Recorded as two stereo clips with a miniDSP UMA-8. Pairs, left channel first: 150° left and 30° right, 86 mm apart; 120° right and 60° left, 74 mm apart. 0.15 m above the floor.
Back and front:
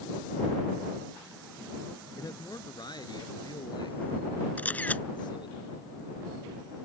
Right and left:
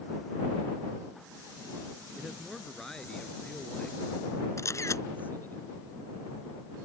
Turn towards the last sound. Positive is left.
turn(degrees=-145)